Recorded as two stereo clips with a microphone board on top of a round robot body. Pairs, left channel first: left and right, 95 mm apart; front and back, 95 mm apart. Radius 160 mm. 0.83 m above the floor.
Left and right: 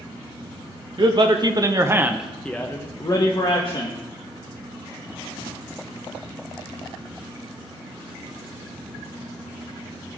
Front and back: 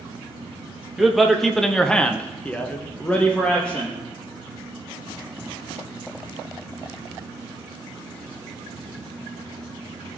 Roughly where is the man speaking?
Right.